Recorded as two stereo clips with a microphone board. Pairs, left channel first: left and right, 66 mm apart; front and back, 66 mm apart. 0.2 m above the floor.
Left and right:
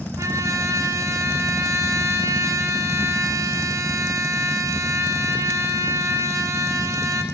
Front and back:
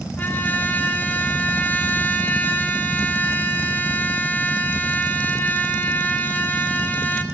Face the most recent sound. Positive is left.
turn(degrees=-60)